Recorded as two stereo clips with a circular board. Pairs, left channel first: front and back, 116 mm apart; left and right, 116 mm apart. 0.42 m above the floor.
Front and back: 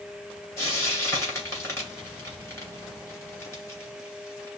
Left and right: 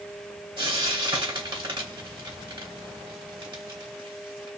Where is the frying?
60° right, 2.5 m.